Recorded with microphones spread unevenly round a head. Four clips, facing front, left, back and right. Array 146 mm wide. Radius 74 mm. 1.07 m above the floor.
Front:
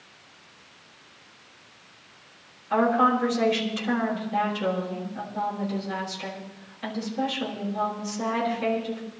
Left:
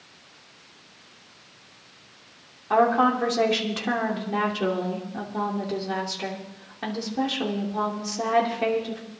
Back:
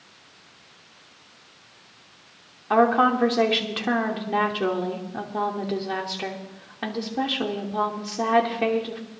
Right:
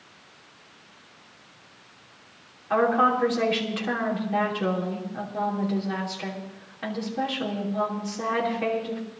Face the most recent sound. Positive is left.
turn(degrees=155)